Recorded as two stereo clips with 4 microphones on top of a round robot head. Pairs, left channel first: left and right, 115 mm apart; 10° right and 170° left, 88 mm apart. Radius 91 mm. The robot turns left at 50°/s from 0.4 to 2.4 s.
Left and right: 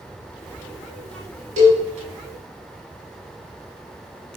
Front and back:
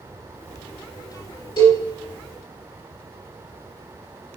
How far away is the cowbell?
About 3.5 m.